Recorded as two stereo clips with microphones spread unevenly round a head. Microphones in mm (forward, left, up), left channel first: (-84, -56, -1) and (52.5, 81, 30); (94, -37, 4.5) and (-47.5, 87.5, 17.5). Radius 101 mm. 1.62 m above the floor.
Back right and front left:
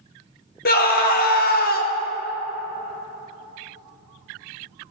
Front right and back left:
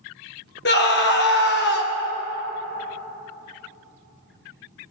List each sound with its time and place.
0.7 s a scream: 85° right, 1.1 m